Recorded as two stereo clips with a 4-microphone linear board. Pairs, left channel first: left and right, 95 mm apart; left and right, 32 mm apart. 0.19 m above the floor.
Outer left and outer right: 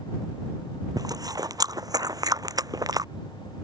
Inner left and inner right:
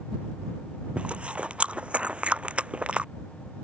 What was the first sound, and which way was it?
Chewing, 40° right (ahead or behind).